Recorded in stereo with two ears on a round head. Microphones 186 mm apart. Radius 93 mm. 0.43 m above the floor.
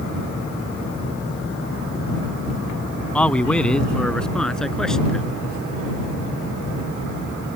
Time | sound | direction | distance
3.1 | a man speaking | 5° left (ahead or behind) | ?